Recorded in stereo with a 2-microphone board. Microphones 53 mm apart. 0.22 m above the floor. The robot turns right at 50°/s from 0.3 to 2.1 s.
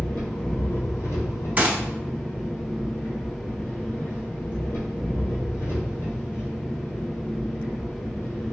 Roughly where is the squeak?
No squeak in this recording.